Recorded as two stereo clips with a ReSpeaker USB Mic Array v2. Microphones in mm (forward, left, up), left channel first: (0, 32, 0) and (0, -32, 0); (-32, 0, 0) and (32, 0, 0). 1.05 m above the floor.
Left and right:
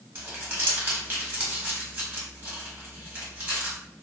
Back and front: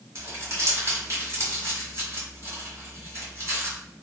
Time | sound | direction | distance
0.1 | crumpling | 40° right | 1.5 m